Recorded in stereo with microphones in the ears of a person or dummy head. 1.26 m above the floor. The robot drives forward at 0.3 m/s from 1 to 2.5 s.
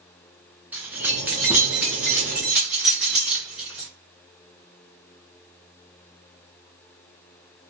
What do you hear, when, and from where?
0.7 s keys jangling: 10° right (ahead or behind), 0.5 m; by 3.9 s 5° right (ahead or behind), 0.9 m